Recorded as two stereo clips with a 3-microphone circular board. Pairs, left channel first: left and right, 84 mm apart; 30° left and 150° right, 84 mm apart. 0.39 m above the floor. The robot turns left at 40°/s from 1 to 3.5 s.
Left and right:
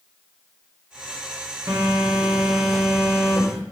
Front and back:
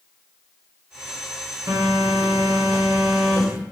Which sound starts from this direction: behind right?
A phone buzzing, at 1.7 s.